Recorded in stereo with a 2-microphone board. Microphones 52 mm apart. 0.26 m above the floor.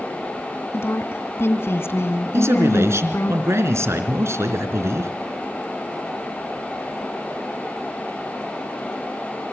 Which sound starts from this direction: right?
A man speaking, at 2.3 s.